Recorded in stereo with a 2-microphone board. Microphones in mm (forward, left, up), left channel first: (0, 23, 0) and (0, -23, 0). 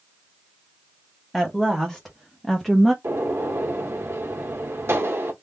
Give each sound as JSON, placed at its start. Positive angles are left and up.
{"t": 1.3, "sound": "a woman speaking", "side_deg": 0, "distance_m": 1.4}
{"t": 3.0, "sound": "a gunshot", "side_deg": -80, "distance_m": 1.4}